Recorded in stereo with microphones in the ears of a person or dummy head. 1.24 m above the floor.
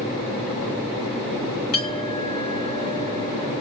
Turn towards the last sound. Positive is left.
turn(degrees=50)  # may be behind; listen again after turning